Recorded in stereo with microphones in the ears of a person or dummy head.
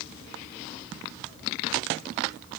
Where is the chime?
I don't hear a chime.